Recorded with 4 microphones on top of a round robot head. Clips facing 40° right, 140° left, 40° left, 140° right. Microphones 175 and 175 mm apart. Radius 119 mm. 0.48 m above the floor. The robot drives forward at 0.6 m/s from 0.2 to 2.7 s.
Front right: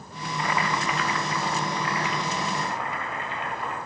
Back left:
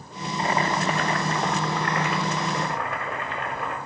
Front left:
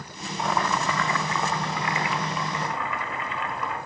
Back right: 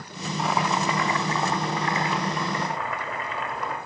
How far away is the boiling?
About 0.7 m.